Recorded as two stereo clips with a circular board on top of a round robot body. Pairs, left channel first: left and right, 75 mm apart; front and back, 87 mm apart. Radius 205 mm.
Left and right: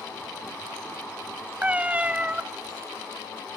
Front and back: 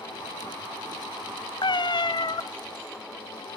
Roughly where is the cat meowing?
Ahead.